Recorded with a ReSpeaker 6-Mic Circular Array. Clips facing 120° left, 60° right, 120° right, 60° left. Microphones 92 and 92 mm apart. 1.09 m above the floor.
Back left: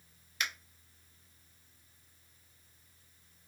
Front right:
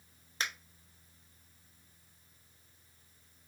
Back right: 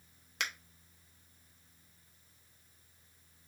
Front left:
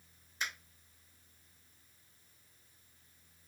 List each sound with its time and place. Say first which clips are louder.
0.4 s a finger snap: even, back right 1 dB; 115° right, 0.6 m